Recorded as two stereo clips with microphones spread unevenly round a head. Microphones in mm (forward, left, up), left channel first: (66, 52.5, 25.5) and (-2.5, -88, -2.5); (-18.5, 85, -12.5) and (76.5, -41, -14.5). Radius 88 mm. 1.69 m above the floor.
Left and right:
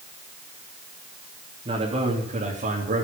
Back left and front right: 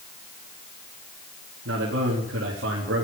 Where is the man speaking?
55° right, 3 m; by 3.1 s 85° right, 3.5 m.